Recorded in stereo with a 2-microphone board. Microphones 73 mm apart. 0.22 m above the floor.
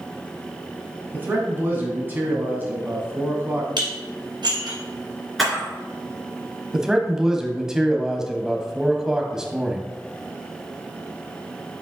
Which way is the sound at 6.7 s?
10° right (ahead or behind).